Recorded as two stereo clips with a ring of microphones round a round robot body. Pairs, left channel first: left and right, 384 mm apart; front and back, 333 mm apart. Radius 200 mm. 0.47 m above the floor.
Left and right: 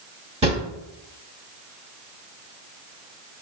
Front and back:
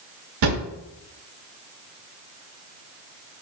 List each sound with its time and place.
0.4 s a drawer: 165° right, 0.6 m